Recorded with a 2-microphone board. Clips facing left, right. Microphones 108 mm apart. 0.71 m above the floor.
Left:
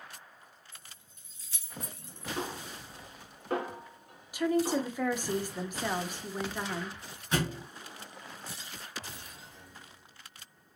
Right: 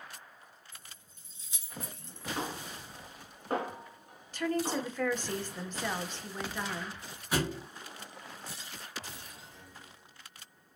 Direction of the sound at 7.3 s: 5° right (ahead or behind).